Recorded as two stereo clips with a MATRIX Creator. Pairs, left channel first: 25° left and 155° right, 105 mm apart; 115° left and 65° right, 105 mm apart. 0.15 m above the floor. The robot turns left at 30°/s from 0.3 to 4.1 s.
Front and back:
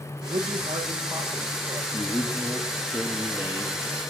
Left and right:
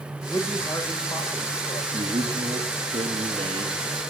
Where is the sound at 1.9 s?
45° right, 4 m; by 3.8 s 100° right, 4 m.